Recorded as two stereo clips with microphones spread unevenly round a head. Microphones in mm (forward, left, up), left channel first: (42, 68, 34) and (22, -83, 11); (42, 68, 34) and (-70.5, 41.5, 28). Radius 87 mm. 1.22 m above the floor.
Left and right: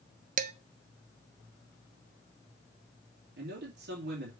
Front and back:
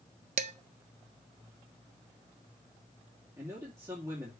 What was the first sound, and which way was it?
Dishes clattering, 145° right.